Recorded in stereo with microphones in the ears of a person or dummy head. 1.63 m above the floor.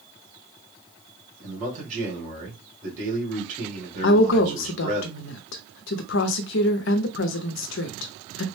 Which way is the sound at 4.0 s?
55° left (ahead or behind).